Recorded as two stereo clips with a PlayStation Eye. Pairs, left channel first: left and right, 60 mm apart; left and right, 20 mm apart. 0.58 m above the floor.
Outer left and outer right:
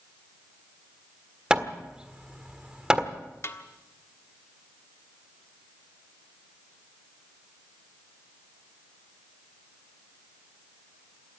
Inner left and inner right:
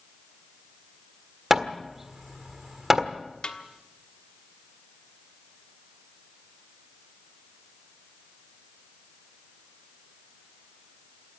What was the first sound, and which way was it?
Hammering, 15° right (ahead or behind).